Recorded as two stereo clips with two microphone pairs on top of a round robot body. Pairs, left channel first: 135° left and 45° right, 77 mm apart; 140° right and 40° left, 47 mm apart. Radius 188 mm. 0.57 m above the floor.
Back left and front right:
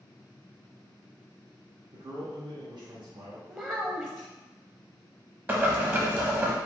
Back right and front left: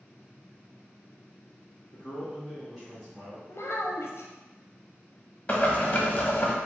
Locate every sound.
1.9 s a man speaking: 55° right, 1.8 m
3.5 s a child speaking: 120° right, 0.8 m
5.5 s boiling: 110° right, 1.3 m